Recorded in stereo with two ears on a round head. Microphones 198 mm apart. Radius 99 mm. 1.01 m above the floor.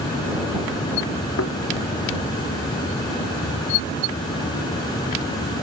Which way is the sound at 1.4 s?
65° left (ahead or behind).